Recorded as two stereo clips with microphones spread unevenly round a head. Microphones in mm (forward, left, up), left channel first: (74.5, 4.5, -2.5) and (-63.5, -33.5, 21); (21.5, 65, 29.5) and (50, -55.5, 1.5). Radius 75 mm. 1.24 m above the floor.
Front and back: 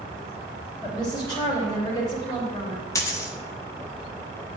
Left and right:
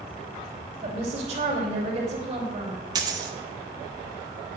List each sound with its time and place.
0.8 s a woman speaking: 45° right, 2.5 m
3.0 s a dropped coin: 40° right, 0.7 m